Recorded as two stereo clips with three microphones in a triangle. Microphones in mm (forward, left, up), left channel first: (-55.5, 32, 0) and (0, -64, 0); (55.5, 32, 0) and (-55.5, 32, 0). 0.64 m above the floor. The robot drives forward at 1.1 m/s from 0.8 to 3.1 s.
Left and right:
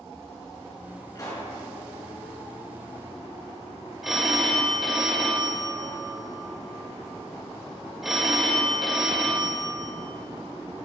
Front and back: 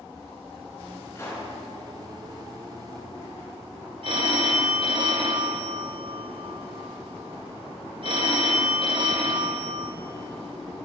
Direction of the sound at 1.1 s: 65° left.